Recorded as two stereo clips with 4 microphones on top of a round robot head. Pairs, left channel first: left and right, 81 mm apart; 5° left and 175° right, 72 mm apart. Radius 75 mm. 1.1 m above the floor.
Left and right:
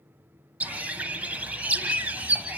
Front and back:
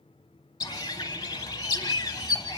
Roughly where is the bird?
Ahead right.